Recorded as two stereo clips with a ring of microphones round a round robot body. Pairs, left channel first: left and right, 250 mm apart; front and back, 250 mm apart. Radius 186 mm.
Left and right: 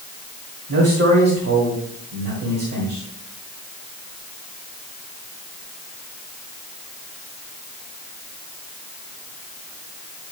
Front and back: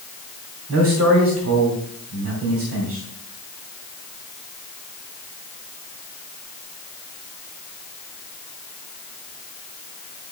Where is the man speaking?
145° right, 2 m.